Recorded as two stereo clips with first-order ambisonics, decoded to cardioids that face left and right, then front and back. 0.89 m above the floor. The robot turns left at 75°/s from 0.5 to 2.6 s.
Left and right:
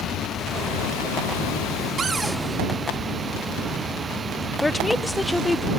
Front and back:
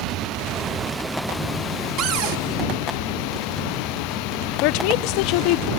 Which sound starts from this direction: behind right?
A cupboard door, at 2.0 s.